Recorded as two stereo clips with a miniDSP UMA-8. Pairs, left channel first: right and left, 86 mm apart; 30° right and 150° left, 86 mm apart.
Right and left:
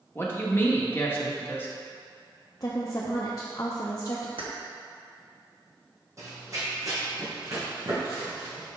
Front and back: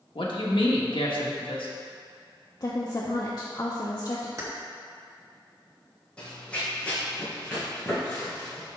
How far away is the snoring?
I don't hear snoring.